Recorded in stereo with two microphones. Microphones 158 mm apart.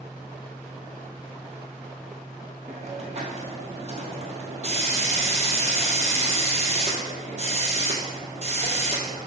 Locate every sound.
2.7 s a hiss: 45° right (ahead or behind), 1.4 m